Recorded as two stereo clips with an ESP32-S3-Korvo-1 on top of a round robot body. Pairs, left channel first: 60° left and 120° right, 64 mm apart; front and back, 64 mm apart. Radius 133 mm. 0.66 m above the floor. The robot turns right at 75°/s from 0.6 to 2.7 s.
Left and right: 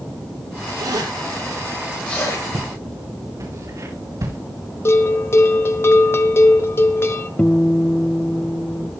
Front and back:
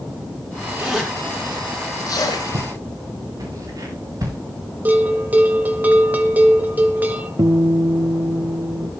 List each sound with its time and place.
0.8 s a zipper: 110° right, 5 m; by 2.4 s 15° left, 5 m
2.5 s footsteps: 160° right, 6.5 m; by 4.4 s 150° right, 7.5 m
4.8 s a bell: 115° left, 1.3 m
7.4 s a guitar: 135° left, 0.6 m